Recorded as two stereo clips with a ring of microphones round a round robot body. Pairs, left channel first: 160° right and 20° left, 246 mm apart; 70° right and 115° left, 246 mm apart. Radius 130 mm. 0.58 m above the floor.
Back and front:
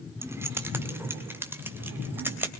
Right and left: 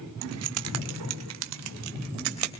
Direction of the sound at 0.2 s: 100° left.